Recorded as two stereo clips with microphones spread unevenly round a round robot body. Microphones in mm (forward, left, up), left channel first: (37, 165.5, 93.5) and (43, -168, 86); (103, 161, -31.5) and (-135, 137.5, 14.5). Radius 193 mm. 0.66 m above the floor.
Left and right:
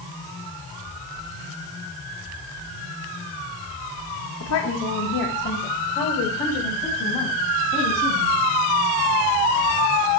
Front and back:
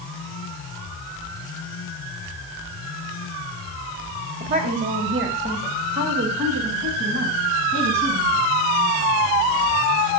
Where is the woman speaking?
140° left, 3.5 m; by 8.5 s 165° left, 7.5 m.